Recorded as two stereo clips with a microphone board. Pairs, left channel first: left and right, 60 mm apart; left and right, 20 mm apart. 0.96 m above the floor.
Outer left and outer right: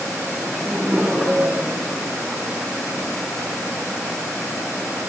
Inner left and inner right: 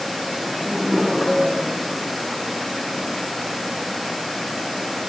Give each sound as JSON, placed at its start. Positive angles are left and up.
{"t": 0.4, "sound": "laughter", "side_deg": -5, "distance_m": 8.5}